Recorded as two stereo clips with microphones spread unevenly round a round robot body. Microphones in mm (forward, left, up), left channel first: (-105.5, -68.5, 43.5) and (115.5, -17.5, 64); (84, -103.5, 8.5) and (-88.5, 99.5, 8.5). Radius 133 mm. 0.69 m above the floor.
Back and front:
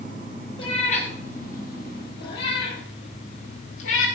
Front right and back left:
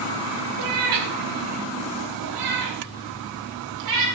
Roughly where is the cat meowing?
Behind left.